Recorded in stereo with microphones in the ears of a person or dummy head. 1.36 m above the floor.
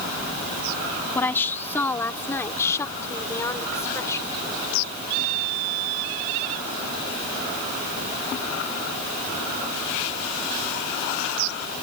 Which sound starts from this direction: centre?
A woman speaking, at 1.1 s.